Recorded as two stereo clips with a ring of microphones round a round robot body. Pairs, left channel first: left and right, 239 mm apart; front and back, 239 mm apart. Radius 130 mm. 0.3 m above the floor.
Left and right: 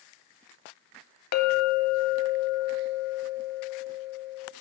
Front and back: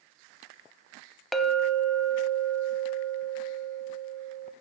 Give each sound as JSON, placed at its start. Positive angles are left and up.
{"t": 1.3, "sound": "a clink", "azimuth_deg": 90, "distance_m": 0.9}